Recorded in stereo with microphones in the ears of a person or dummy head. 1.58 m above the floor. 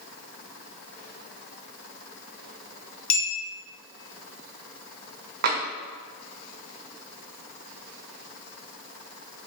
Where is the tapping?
40° right (ahead or behind), 0.5 m.